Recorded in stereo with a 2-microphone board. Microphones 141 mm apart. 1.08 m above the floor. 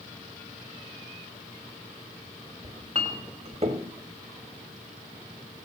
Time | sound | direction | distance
2.6 | a clink | 45° right (ahead or behind) | 1.2 m